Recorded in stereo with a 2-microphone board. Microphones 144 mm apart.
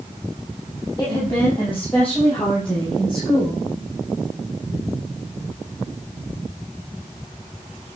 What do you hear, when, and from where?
1.0 s a woman speaking: 20° left (ahead or behind), 6.5 m; by 3.8 s centre (ahead or behind), 7.5 m